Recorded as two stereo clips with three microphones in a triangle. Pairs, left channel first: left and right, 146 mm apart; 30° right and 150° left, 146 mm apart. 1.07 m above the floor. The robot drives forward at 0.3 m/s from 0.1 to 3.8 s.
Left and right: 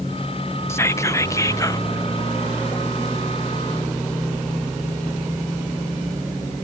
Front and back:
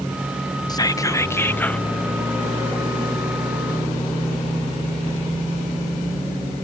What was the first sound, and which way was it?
Whispering, 25° left.